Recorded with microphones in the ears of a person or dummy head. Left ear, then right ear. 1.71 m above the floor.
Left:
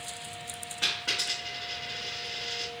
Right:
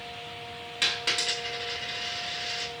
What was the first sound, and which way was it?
A dropped coin, 25° right (ahead or behind).